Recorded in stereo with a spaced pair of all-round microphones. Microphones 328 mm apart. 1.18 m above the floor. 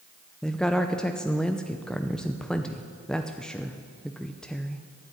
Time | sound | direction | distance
0.4 | a woman speaking | centre (ahead or behind) | 0.5 m